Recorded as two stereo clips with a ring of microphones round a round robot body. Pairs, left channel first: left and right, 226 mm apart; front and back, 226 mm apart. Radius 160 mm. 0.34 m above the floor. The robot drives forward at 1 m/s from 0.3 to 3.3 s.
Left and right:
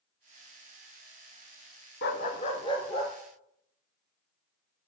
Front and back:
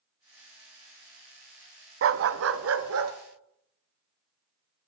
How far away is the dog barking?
About 0.8 m.